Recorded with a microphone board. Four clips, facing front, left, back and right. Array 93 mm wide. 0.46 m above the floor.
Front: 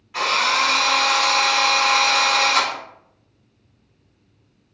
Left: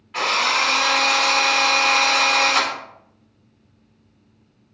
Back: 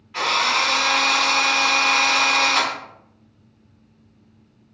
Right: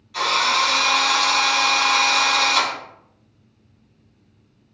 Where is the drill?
80° left, 1.4 m.